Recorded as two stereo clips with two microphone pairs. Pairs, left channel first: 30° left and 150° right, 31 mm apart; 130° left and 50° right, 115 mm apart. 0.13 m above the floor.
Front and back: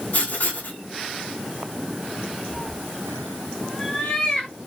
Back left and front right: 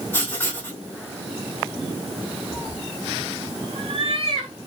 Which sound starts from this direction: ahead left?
Writing, at 0.1 s.